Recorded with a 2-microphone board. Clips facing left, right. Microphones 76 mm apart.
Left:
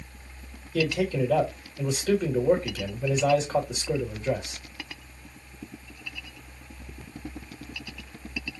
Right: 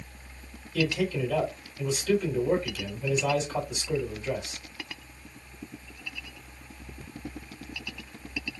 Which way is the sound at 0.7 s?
45° left (ahead or behind).